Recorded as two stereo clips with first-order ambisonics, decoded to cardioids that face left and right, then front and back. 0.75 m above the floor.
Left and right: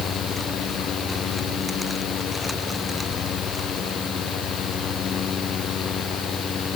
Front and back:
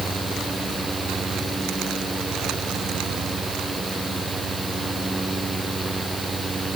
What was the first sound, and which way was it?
Only background noise.